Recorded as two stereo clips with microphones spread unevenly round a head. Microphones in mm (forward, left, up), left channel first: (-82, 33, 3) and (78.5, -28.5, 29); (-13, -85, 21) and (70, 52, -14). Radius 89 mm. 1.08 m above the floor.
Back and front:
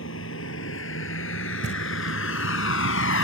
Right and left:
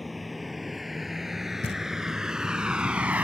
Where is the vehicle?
150° left; by 3.2 s 145° left.